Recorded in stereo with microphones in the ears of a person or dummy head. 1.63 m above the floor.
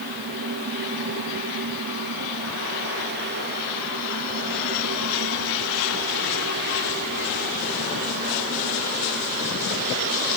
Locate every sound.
Only background noise.